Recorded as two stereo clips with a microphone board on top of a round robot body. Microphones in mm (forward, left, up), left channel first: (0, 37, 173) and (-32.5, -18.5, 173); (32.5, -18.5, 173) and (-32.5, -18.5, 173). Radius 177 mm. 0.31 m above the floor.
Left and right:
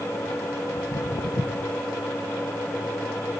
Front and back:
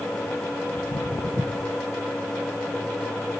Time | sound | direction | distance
0.7 | footsteps | 20° left | 0.5 m